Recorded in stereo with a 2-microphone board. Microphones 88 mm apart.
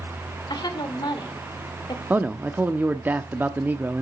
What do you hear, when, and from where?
0.5 s a woman speaking: 50° left (ahead or behind), 2.0 m
2.1 s a man speaking: 20° right (ahead or behind), 0.7 m